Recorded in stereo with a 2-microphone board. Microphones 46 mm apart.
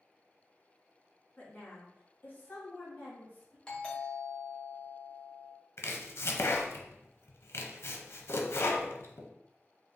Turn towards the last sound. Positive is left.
turn(degrees=60)  # may be behind; listen again after turning